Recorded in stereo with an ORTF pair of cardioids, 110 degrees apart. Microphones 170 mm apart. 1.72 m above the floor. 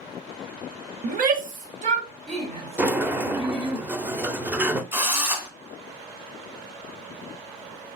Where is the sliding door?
10° right, 0.7 m.